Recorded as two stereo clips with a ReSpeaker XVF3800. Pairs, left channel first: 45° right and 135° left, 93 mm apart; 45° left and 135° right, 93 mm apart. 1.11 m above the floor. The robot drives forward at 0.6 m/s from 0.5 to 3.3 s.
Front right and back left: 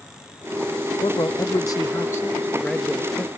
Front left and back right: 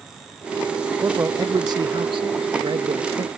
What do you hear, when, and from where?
1.0 s a man speaking: 70° right; by 3.3 s 130° right